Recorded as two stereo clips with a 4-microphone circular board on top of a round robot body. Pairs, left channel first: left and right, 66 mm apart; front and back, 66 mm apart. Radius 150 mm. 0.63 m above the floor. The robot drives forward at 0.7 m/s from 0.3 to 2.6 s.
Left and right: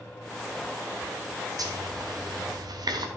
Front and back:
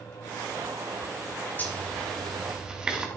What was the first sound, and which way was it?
A zipper, 65° right.